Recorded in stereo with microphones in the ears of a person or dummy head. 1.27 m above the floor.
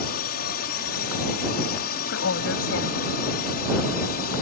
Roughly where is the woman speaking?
Left.